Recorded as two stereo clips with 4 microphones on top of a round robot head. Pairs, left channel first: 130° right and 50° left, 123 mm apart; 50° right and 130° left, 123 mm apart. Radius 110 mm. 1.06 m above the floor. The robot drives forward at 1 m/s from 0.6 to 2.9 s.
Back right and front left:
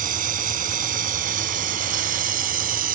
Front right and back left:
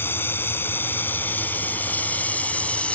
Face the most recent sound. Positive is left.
turn(degrees=30)